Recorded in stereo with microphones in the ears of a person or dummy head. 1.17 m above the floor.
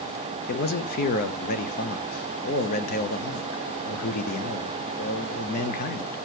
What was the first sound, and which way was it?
A man speaking, 50° left (ahead or behind).